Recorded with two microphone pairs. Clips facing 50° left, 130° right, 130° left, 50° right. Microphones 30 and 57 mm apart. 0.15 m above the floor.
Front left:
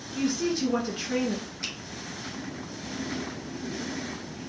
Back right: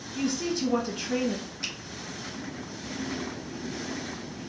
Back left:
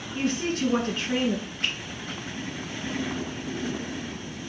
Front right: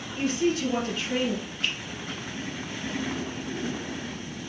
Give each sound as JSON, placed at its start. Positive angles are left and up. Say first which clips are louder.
{"t": 0.1, "sound": "a woman speaking", "louder": "front left 2 dB, front right 2 dB", "azimuth_deg": 130, "distance_m": 1.8}
{"t": 1.6, "sound": "a finger snap", "louder": "back right 2 dB, even", "azimuth_deg": 140, "distance_m": 2.5}